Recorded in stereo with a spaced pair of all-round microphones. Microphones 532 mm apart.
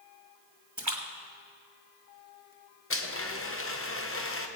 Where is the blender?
25° left (ahead or behind), 0.9 m.